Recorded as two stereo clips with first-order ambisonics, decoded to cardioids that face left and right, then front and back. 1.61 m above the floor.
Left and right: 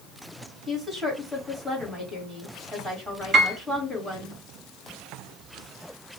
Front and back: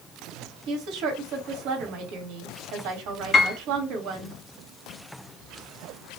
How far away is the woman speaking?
About 1.6 m.